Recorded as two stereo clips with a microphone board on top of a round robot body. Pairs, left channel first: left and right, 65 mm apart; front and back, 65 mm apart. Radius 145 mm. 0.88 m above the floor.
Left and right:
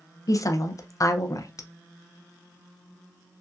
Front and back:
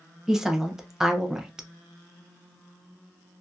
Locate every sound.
0.3 s a woman speaking: 100° left, 0.7 m